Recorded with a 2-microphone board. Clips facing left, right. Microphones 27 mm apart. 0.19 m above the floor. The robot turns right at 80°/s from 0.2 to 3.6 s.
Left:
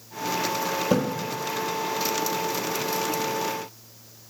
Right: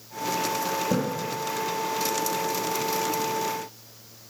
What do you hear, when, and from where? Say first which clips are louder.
0.9 s a splash: left 4 dB; 40° left (ahead or behind), 1.7 m; by 1.0 s 30° left (ahead or behind), 1.7 m